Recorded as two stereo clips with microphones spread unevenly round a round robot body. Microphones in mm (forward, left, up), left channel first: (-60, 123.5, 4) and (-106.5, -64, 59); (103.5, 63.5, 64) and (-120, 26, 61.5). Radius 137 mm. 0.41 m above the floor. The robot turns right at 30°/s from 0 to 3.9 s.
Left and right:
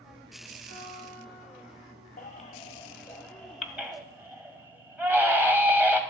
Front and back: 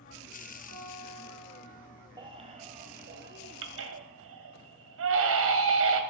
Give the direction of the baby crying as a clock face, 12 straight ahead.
8 o'clock.